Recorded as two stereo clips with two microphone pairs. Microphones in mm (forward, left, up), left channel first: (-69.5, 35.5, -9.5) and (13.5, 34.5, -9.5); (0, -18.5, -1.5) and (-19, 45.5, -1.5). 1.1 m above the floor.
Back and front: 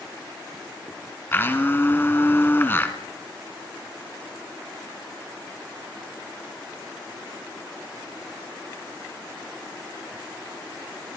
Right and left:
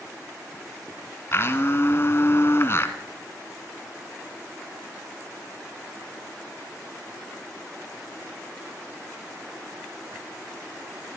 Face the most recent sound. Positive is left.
turn(degrees=-120)